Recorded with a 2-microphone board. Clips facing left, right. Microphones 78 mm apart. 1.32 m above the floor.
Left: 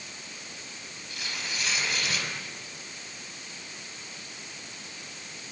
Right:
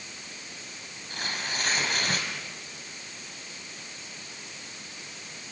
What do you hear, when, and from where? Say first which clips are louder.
1.1 s tearing paper: right 4 dB; 45° right (ahead or behind), 6 m